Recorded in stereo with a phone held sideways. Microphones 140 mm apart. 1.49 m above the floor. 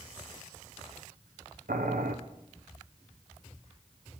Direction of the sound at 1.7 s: 85° right.